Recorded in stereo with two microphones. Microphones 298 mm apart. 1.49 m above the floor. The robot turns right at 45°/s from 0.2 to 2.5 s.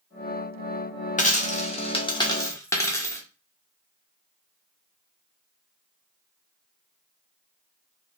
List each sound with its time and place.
1.2 s a dropped coin: 25° left (ahead or behind), 0.8 m; by 3.2 s 10° left (ahead or behind), 0.8 m